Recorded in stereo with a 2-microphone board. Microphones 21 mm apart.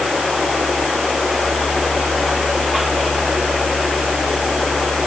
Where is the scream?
I don't hear a scream.